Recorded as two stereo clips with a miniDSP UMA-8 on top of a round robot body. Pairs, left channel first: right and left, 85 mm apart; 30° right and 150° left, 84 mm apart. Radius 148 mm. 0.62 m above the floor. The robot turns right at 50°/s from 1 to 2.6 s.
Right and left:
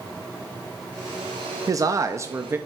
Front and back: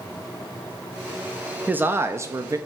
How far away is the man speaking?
About 0.6 m.